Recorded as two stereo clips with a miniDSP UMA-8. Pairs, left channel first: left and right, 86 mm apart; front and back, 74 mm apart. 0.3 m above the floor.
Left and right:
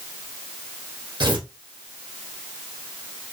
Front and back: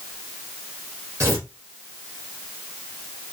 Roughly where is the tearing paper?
Behind right.